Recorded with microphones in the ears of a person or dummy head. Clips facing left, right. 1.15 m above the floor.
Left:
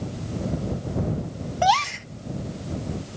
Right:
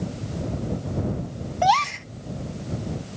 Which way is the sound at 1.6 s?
5° left (ahead or behind).